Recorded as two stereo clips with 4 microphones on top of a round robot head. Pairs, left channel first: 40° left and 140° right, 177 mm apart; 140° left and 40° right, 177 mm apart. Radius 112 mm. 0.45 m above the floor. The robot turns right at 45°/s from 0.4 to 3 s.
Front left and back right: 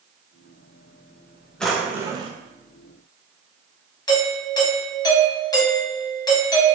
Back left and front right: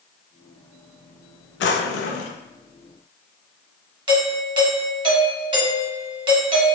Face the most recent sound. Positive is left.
turn(degrees=-10)